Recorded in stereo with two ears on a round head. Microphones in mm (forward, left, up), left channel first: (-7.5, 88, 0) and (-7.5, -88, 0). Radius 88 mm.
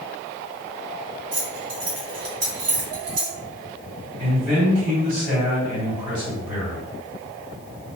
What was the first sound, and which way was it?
Keys jangling, 60° right (ahead or behind).